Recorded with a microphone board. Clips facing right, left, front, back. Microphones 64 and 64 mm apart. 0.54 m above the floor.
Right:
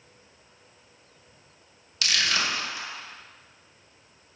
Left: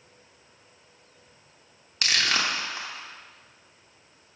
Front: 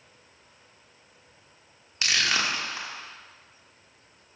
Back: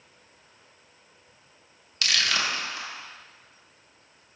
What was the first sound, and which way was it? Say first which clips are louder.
Crushing: left 1 dB, front 1 dB; 60° left.